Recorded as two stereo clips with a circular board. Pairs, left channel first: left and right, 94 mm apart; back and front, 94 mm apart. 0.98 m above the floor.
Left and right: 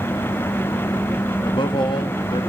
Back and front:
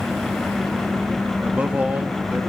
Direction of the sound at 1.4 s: 75° left.